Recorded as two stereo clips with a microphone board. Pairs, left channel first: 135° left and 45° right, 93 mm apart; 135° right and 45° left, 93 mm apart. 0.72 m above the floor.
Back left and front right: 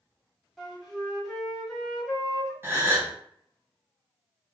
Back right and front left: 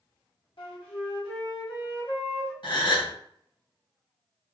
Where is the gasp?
110° right, 1.1 m.